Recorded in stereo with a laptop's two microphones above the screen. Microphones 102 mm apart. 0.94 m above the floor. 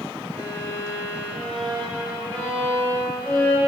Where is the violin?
20° left (ahead or behind), 3 m.